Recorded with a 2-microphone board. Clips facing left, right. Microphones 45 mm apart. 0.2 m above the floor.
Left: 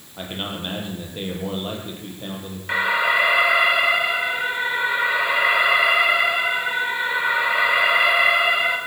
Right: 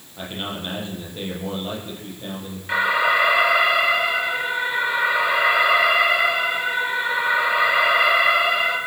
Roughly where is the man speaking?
Centre.